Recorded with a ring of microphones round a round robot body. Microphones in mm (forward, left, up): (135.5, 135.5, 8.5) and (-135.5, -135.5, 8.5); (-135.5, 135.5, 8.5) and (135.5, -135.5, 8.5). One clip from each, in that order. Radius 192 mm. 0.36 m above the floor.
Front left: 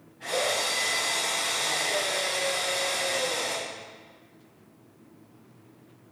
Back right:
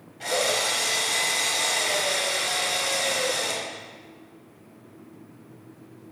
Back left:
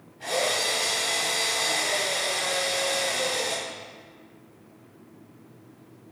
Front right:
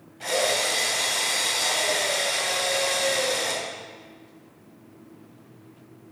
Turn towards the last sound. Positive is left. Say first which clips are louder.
# back right 3 dB, front right 2 dB
turn(degrees=-110)